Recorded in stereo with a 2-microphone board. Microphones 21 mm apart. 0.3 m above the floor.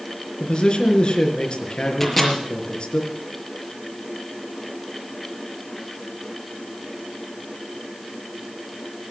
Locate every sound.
0.4 s a man speaking: 45° left (ahead or behind), 4 m
2.0 s a microwave: 5° left (ahead or behind), 4.5 m